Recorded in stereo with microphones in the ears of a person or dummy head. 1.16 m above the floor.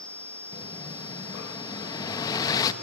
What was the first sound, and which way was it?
An explosion, 25° left (ahead or behind).